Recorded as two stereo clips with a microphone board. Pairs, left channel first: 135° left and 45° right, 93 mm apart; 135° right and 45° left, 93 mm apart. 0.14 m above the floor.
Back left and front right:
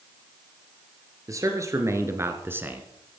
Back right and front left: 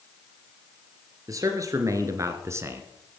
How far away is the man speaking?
About 2.5 m.